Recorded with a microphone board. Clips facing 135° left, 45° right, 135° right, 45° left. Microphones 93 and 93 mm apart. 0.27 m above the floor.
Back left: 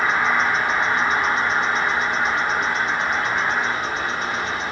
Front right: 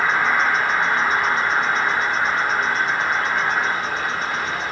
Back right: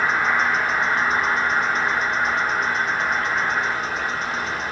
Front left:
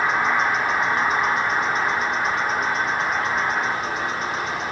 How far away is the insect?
About 1.9 m.